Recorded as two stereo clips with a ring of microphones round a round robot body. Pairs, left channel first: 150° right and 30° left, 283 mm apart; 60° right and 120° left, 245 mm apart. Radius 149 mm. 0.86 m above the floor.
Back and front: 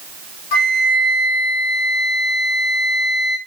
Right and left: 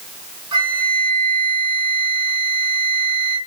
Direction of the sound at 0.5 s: 165° right.